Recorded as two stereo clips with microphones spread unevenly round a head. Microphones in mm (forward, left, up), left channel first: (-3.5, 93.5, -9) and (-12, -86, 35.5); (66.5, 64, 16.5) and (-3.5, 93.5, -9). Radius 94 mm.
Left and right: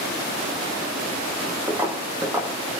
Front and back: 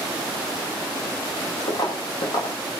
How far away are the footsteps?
About 3 m.